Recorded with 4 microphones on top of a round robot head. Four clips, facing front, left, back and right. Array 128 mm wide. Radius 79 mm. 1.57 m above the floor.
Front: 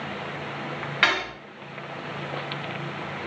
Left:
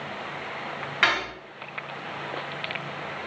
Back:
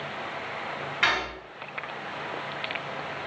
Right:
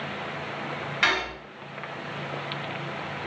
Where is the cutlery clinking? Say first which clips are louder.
Left 1 dB, front 2 dB; 35° left, 0.7 m.